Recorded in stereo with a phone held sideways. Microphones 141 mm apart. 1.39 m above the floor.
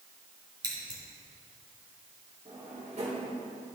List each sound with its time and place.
0.6 s scissors: 30° right (ahead or behind), 2.5 m
2.5 s a drawer: 50° right (ahead or behind), 3.5 m